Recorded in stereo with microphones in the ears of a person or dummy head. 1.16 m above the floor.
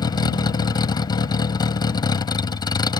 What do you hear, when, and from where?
0.0 s a vehicle: 20° left (ahead or behind)